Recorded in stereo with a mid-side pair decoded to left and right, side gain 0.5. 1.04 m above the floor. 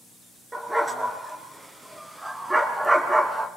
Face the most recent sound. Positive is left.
turn(degrees=-10)